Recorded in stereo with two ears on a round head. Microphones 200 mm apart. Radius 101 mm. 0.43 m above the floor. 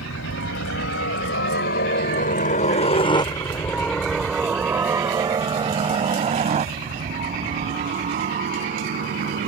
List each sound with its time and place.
0.0 s a helicopter: 60° left (ahead or behind); by 9.5 s 45° right (ahead or behind)